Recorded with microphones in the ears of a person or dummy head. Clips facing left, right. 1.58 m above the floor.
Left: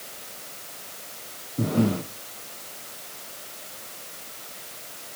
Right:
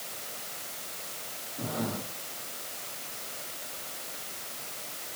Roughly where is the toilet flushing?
No toilet flushing in this recording.